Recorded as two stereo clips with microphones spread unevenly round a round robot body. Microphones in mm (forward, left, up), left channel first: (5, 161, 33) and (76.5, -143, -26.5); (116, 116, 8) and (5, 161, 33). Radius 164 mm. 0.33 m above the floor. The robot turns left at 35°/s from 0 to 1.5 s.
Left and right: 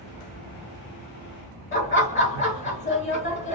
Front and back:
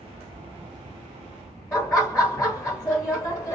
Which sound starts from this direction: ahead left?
Laughter, at 1.7 s.